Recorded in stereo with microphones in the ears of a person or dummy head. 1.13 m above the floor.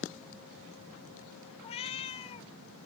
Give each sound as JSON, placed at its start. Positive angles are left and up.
{"t": 1.6, "sound": "a cat meowing", "side_deg": 35, "distance_m": 0.7}